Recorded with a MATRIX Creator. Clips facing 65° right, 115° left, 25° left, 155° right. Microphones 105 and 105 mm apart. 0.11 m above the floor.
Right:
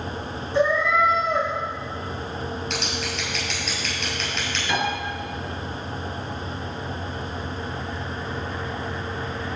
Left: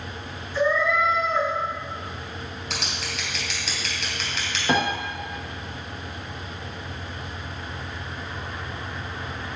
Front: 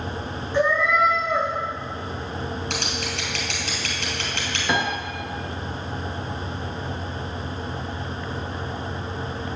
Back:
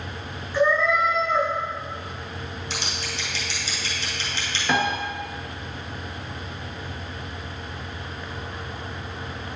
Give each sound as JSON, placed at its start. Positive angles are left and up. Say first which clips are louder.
{"t": 0.5, "sound": "a cat meowing", "louder": "right 2 dB, even", "azimuth_deg": -45, "distance_m": 3.5}
{"t": 2.7, "sound": "scissors", "louder": "right 4 dB, front 4 dB", "azimuth_deg": 20, "distance_m": 3.0}
{"t": 4.7, "sound": "a piano", "louder": "left 3 dB, back 1 dB", "azimuth_deg": 100, "distance_m": 1.5}